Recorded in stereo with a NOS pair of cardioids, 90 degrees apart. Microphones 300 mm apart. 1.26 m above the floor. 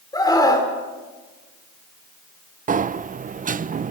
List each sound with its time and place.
0.1 s a scream: 15° left, 4.5 m
2.7 s a sliding door: 30° right, 0.5 m